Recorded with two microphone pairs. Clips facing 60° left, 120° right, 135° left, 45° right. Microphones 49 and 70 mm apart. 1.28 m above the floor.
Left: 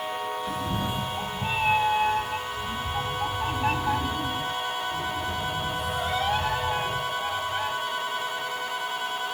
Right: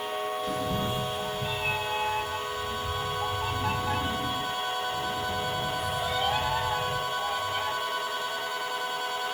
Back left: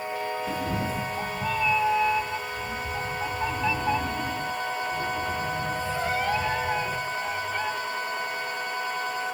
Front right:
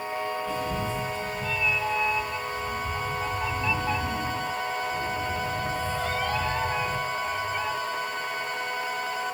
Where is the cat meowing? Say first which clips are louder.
Even, even; 150° left, 0.7 m; by 7.7 s 65° left, 4.5 m.